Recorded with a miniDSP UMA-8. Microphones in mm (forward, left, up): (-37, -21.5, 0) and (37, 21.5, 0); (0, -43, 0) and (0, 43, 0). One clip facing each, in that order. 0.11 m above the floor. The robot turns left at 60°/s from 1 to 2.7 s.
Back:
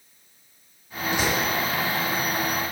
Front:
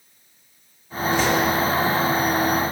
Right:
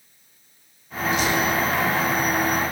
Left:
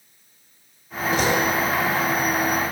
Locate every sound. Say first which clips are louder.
1.1 s a door slam: front 5 dB, left 1 dB; 140° left, 5.5 m; by 1.6 s 110° left, 5.5 m